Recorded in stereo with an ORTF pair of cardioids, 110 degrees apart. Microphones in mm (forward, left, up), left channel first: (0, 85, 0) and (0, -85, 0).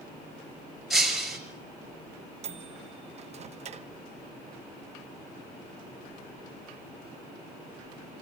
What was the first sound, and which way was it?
Breaking glass, straight ahead.